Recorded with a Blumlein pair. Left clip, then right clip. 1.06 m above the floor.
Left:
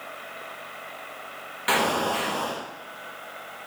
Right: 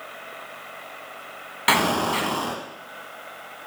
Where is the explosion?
70° right, 0.8 m.